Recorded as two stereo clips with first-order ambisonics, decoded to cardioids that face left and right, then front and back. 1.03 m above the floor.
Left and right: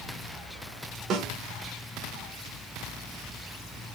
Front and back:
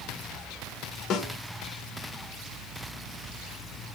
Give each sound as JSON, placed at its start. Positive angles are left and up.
{"t": 1.1, "sound": "a snare drum", "azimuth_deg": -50, "distance_m": 1.8}